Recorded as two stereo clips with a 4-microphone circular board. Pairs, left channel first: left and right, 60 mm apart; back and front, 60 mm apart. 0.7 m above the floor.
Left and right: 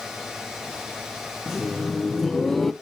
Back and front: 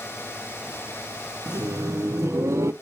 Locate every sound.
1.5 s laughter: 5° left, 0.7 m